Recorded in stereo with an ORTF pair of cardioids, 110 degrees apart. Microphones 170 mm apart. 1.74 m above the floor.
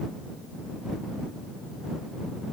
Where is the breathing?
I don't hear breathing.